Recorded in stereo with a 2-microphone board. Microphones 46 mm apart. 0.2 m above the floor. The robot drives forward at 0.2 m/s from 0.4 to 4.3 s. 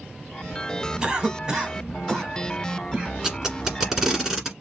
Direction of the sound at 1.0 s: 15° right (ahead or behind).